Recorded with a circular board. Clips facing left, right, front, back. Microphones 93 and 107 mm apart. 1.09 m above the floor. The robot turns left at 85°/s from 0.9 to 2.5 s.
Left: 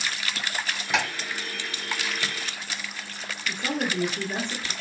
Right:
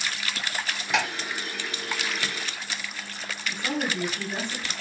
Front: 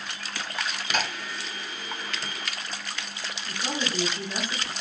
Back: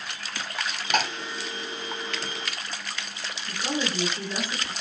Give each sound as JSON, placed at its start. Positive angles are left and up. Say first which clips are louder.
{"t": 0.9, "sound": "ticking", "louder": "even, back 4 dB", "azimuth_deg": 180, "distance_m": 1.8}
{"t": 3.5, "sound": "a woman speaking", "louder": "left 1 dB, back 2 dB", "azimuth_deg": 65, "distance_m": 1.0}